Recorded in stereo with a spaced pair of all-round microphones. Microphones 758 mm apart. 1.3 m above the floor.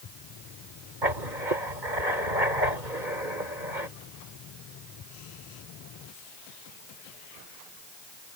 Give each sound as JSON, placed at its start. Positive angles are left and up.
{"t": 1.0, "sound": "writing", "side_deg": -80}